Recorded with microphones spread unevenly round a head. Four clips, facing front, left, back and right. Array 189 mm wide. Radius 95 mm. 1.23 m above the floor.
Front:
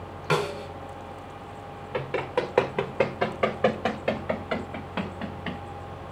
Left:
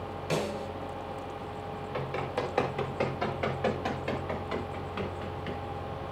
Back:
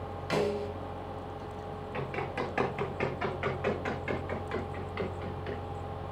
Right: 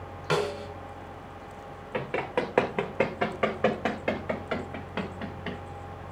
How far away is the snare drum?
About 5.5 m.